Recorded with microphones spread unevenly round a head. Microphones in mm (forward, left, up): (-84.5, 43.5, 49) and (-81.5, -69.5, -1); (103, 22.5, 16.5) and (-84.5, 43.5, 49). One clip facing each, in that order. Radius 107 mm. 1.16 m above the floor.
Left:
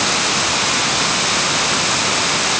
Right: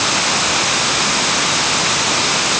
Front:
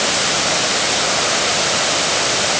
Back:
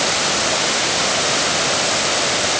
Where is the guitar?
I don't hear a guitar.